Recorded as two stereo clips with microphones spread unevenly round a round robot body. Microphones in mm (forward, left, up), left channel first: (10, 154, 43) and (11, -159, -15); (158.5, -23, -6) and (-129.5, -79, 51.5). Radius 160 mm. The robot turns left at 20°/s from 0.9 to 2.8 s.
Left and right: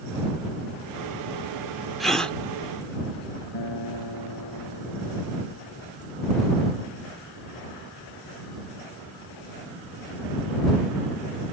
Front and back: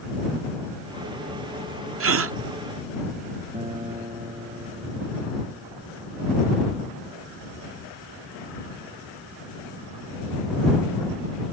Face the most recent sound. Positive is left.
turn(degrees=115)